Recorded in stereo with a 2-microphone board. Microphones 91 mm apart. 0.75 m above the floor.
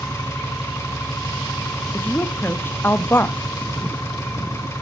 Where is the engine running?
30° left (ahead or behind), 3.5 m.